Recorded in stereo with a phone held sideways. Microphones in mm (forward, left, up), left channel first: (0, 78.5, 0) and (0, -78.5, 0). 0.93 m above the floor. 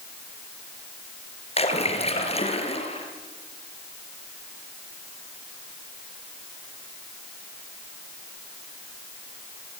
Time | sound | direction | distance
1.6 | a splash | 35° left (ahead or behind) | 3.5 m